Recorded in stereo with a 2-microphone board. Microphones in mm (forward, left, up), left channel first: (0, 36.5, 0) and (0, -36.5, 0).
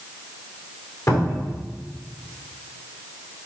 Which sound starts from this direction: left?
A cupboard door, at 1.1 s.